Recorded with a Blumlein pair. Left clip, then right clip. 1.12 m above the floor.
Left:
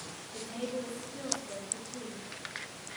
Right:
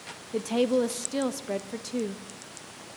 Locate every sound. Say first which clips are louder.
0.3 s a woman speaking: right 13 dB; 50° right, 1.1 m